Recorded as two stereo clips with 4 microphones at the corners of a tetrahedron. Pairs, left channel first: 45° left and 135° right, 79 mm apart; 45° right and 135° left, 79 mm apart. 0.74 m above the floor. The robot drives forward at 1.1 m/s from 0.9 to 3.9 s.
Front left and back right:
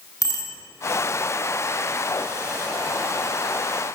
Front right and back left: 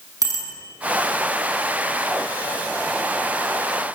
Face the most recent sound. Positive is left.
turn(degrees=130)